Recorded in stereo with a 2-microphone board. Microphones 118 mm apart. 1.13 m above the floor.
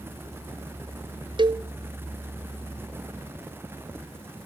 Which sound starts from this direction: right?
A cowbell, at 1.4 s.